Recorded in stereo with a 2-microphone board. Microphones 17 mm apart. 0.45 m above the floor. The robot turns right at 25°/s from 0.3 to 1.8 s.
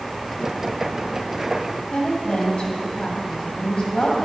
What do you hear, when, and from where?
1.9 s a woman speaking: 60° left (ahead or behind), 3 m